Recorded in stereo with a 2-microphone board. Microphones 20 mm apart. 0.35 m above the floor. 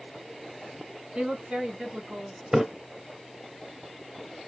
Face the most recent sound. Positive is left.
turn(degrees=-20)  # may be behind; listen again after turning